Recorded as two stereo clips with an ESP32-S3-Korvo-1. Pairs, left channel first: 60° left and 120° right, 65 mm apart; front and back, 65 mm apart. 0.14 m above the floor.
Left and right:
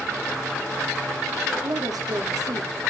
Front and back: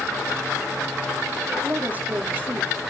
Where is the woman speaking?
115° right, 5 m.